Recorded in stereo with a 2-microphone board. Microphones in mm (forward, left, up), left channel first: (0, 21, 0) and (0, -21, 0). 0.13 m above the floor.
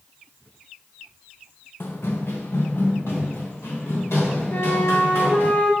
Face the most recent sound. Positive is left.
turn(degrees=50)  # may be behind; listen again after turning